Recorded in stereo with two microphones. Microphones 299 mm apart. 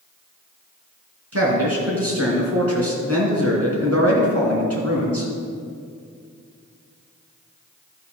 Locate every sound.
1.3 s a man speaking: 50° right (ahead or behind), 3 m